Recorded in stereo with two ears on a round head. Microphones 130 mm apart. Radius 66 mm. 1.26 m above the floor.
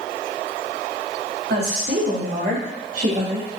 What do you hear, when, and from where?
1.5 s a woman speaking: 85° right, 3 m; by 3.5 s 50° right (ahead or behind), 1.6 m